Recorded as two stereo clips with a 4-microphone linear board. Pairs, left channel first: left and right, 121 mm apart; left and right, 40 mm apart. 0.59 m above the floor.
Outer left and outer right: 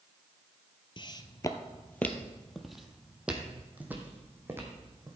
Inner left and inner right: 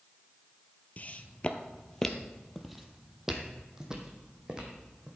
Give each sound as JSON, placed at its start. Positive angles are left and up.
{"t": 1.0, "sound": "footsteps", "side_deg": 40, "distance_m": 0.8}